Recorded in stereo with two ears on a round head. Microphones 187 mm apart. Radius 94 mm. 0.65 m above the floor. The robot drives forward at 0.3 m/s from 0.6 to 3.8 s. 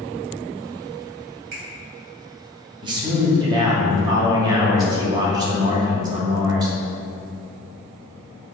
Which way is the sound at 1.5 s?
50° right (ahead or behind).